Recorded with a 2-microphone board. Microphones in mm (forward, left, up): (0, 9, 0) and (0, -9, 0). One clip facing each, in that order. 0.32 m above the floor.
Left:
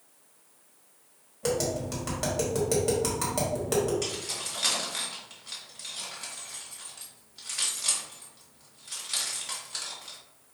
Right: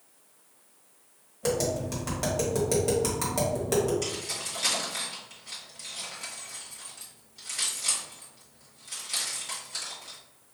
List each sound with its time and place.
1.4 s tapping: centre (ahead or behind), 1.7 m
4.0 s keys jangling: 5° left (ahead or behind), 2 m